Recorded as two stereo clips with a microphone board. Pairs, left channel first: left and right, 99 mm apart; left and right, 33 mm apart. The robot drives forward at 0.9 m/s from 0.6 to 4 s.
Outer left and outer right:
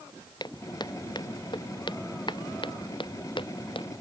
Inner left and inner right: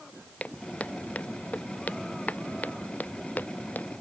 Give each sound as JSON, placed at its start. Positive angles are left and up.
{"t": 0.4, "sound": "footsteps", "side_deg": 45}